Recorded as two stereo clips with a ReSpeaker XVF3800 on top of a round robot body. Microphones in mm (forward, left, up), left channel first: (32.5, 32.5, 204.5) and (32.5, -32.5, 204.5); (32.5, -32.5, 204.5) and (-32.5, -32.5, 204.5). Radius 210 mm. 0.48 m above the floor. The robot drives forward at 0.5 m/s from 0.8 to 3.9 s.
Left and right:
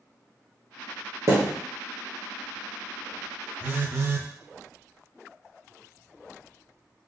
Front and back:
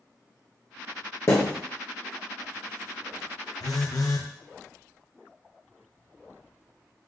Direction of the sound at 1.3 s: 45° right.